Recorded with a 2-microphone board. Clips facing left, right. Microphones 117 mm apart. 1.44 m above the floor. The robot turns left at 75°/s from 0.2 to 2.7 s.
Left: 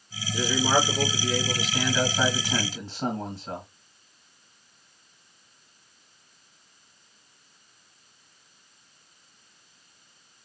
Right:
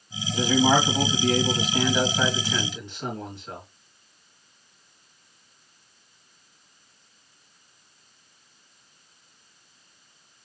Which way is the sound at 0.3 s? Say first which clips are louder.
Right 4 dB; 35° right.